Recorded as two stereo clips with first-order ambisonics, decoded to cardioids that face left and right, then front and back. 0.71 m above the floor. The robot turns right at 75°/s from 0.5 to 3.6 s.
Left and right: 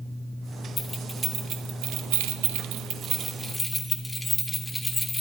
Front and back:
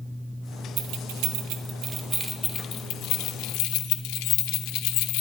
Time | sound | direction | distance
0.8 | keys jangling | 155° left | 1.0 m